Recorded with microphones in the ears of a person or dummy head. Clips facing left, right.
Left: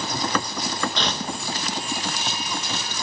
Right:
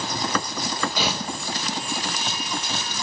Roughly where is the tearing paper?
Centre.